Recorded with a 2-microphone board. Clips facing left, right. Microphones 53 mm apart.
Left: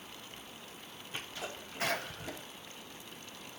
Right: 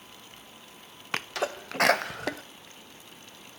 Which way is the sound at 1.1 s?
75° right (ahead or behind).